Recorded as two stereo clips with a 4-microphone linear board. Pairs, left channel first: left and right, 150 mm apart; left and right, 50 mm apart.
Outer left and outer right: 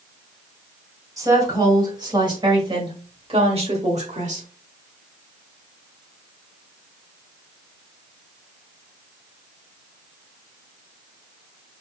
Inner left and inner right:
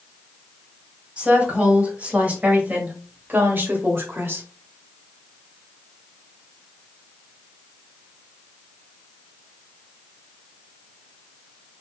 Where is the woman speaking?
25° right (ahead or behind), 2.5 m; by 4.5 s 55° right (ahead or behind), 1.5 m.